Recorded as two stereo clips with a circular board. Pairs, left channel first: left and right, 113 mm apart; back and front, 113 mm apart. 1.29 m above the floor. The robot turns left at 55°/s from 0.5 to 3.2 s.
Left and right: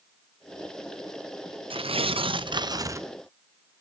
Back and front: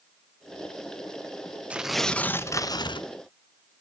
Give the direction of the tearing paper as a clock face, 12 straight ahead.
3 o'clock.